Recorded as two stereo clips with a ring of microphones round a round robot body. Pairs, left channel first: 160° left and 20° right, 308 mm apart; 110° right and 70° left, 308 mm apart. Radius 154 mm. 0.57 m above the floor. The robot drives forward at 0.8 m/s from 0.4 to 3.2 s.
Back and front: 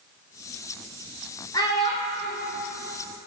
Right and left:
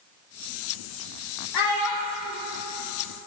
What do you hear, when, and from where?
1.5 s a child speaking: 125° right, 1.6 m; by 2.4 s 140° right, 2 m